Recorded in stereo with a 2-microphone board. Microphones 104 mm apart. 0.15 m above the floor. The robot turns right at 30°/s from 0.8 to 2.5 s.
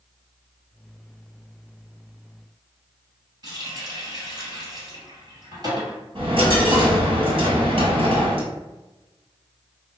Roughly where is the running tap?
Right.